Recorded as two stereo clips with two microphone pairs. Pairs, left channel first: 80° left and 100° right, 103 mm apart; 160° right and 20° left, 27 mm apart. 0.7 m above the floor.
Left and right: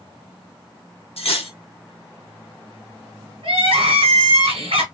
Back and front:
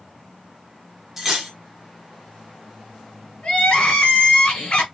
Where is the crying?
110° right, 1.7 m.